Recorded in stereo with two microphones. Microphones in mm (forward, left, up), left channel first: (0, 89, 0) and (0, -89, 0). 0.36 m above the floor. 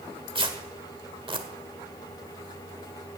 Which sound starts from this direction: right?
Tearing paper, at 0.3 s.